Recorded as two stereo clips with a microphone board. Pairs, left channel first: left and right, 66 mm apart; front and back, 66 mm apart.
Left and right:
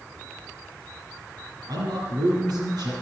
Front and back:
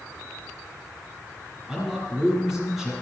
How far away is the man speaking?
About 7 m.